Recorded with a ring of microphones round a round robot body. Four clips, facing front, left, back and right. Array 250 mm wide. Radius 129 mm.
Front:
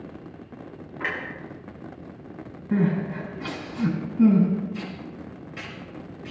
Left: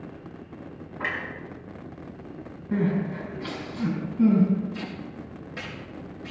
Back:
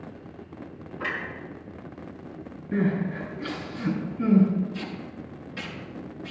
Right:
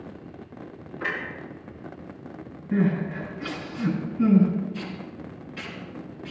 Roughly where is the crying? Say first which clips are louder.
Right 1 dB, front 2 dB; ahead left.